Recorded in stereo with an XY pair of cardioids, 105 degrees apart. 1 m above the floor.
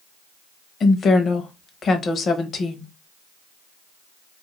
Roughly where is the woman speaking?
Ahead left.